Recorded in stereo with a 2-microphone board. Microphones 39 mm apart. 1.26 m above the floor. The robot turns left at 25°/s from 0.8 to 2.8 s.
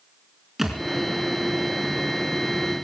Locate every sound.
0.6 s a thud: 5° right (ahead or behind), 3 m